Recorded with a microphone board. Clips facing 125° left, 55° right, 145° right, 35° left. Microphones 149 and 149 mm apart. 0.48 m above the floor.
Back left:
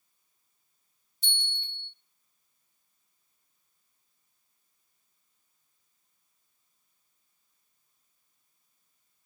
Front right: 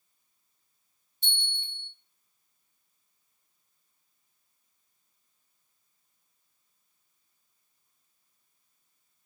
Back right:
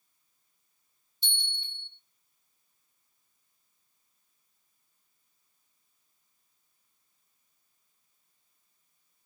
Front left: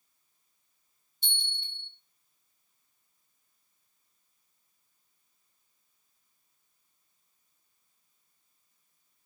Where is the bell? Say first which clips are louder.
Even, even; straight ahead, 1.2 m.